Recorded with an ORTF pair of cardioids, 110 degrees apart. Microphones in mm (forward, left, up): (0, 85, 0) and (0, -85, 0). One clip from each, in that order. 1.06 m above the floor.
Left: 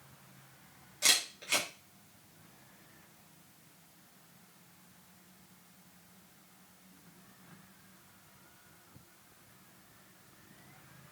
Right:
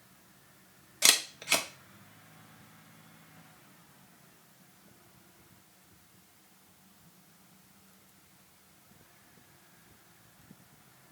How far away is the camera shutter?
About 1.2 m.